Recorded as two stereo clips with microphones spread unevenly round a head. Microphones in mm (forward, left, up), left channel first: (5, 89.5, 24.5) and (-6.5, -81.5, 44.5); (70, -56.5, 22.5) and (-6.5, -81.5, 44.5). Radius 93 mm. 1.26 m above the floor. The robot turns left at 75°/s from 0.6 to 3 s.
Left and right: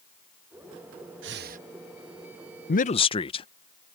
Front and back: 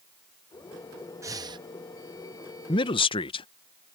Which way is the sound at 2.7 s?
50° left.